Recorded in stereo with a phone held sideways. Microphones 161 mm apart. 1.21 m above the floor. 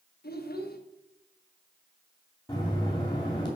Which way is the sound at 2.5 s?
25° left (ahead or behind).